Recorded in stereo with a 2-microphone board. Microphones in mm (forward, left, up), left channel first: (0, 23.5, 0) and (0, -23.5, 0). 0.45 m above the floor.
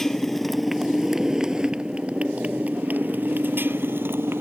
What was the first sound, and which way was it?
A motorcycle, 10° left (ahead or behind).